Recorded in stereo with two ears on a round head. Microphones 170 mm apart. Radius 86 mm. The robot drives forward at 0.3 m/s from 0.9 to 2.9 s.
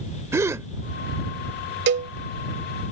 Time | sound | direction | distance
0.3 | a gasp | 15° right (ahead or behind) | ?
1.9 | a cowbell | 55° right (ahead or behind) | ?